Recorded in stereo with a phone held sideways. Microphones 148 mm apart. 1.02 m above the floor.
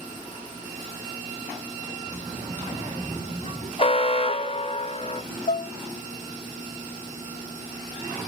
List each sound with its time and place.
2.1 s a child speaking: 45° right (ahead or behind), 3.5 m; by 3.7 s 55° right (ahead or behind), 3 m
3.8 s an alarm: 40° left (ahead or behind), 1.2 m
5.5 s dishes clattering: 60° left (ahead or behind), 0.7 m